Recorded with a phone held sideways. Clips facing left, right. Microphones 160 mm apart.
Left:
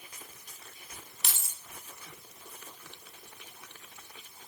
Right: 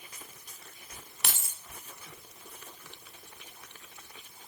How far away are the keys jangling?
About 0.7 m.